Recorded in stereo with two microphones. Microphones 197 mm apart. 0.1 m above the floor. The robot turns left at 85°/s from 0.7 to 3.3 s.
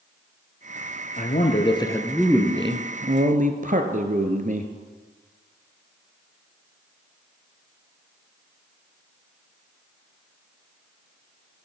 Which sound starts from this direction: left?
A man speaking, at 1.2 s.